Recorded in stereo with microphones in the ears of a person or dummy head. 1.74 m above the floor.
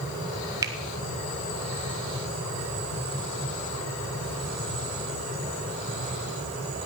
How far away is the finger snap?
About 1.6 m.